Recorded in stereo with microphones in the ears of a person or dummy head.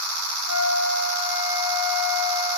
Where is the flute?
15° right (ahead or behind), 3 m.